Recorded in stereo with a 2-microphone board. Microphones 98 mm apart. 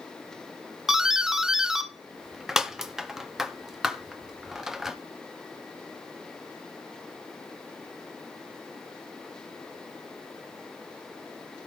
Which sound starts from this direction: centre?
A doorbell, at 0.9 s.